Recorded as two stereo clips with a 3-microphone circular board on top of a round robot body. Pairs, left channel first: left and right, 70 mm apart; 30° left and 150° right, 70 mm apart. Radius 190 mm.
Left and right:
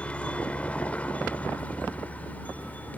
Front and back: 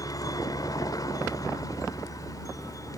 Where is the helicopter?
20° left; by 3.0 s 30° left.